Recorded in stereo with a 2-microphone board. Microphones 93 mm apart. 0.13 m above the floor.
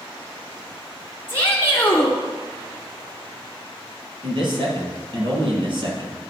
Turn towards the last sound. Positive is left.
turn(degrees=-55)  # may be behind; listen again after turning